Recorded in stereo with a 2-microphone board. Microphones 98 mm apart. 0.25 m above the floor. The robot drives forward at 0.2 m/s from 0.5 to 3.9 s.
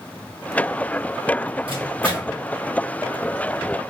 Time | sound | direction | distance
1.7 | a microwave | 65° right (ahead or behind) | 1.8 m